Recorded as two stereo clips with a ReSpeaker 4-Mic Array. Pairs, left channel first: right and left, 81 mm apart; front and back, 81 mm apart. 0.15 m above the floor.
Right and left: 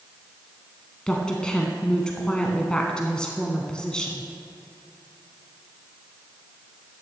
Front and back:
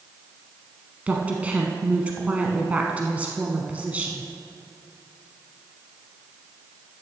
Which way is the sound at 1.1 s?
150° right.